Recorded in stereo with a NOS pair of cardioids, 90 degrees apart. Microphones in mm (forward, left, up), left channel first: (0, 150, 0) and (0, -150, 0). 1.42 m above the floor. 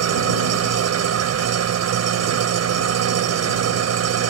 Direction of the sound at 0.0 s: 60° right.